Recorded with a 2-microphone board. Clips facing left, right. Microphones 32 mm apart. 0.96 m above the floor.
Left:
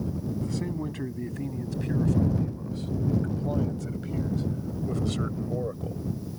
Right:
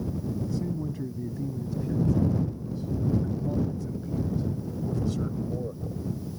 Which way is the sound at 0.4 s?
85° left.